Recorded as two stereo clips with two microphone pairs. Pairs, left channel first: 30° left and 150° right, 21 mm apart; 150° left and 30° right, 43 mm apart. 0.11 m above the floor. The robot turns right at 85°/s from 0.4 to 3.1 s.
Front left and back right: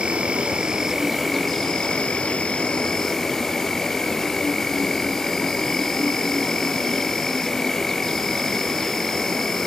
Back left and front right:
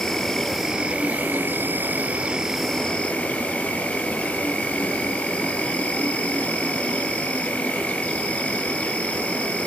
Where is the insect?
130° right, 2.5 m; by 9.7 s 100° left, 2.5 m.